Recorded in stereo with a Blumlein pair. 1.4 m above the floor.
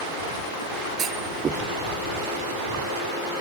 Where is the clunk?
25° right.